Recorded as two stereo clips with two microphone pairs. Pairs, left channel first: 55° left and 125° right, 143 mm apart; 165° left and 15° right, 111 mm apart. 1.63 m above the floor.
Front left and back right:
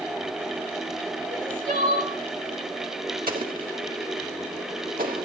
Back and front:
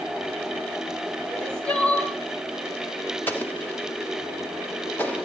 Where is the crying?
120° right, 2.5 m.